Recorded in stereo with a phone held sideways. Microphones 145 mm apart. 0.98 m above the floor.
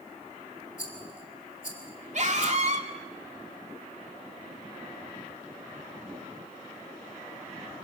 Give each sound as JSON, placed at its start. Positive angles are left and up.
{"t": 0.8, "sound": "a rattle", "side_deg": 55, "distance_m": 3.0}
{"t": 2.1, "sound": "a scream", "side_deg": -50, "distance_m": 2.5}